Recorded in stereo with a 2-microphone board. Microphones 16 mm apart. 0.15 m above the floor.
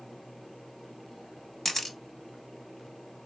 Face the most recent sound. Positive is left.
turn(degrees=15)  # may be behind; listen again after turning